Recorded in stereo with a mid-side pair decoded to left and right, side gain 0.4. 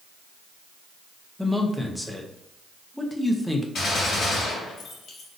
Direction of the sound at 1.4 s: 5° left.